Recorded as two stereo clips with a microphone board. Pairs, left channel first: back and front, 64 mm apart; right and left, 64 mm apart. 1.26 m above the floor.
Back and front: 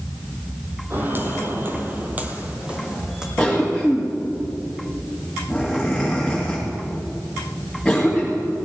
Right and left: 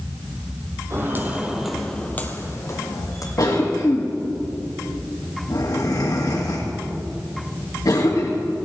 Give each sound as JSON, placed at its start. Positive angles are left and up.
{"t": 0.9, "sound": "footsteps", "azimuth_deg": 50, "distance_m": 2.0}
{"t": 3.4, "sound": "a cough", "azimuth_deg": -90, "distance_m": 1.8}